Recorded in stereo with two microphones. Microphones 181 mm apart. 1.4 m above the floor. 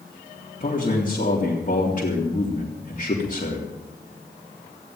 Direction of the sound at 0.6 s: 50° left (ahead or behind).